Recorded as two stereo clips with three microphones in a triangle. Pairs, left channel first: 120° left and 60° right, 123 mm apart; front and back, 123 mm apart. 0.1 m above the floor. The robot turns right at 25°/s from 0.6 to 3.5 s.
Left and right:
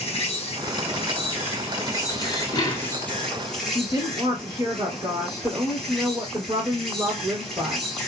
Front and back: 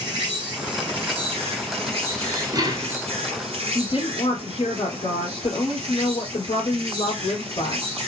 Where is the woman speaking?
5° right, 2 m.